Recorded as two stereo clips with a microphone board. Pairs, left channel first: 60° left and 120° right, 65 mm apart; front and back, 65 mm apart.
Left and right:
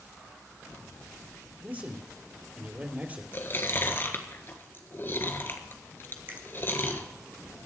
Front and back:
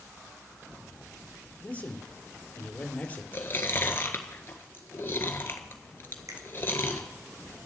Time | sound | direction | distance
1.6 | a man speaking | 60° right | 2.5 m
3.3 | chewing | 30° left | 1.5 m
6.3 | a finger snap | 170° right | 2.0 m